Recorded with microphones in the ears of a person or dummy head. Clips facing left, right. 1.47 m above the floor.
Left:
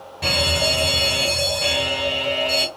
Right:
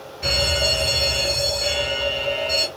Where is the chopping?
I don't hear chopping.